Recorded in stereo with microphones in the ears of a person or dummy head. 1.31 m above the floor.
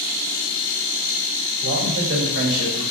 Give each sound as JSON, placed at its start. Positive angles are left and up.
{"t": 1.6, "sound": "a man speaking", "side_deg": -60, "distance_m": 3.0}